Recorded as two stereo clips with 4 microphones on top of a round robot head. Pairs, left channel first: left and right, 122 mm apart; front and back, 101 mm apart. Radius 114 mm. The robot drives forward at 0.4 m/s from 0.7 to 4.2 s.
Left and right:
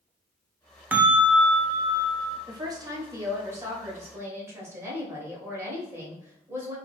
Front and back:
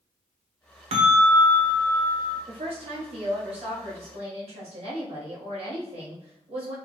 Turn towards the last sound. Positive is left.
turn(degrees=-160)